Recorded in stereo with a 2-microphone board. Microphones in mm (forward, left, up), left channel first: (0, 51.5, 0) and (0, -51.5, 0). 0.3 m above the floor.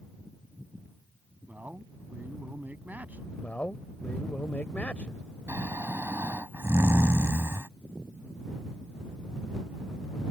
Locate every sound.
1.5 s a man speaking: 15° right (ahead or behind)
3.4 s a man speaking: 15° left (ahead or behind)
5.5 s snoring: 25° right (ahead or behind)